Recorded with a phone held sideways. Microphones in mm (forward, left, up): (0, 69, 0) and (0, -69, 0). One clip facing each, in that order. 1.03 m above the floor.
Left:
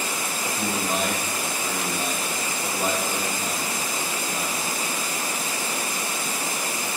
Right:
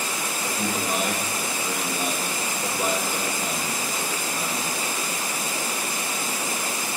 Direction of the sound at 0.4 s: 25° right (ahead or behind).